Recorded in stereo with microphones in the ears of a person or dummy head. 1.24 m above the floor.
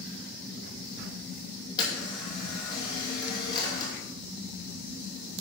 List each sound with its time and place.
1.8 s a camera shutter: 25° left (ahead or behind), 2.5 m